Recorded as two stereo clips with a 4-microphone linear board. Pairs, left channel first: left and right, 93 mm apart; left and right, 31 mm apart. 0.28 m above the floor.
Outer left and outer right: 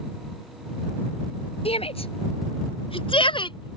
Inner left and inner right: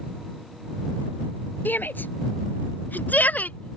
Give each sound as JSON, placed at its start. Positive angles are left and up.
{"t": 1.6, "sound": "a shout", "side_deg": 75}